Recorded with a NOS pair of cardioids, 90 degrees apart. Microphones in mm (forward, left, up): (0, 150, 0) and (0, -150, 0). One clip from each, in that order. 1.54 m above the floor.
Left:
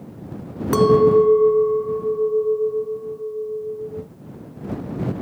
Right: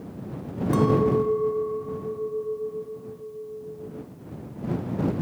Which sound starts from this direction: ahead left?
A clink, at 0.7 s.